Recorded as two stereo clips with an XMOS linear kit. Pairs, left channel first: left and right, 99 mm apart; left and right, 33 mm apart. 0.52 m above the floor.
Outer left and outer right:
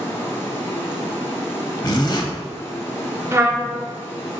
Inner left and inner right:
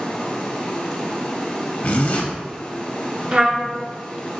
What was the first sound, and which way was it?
Running water, 25° left (ahead or behind).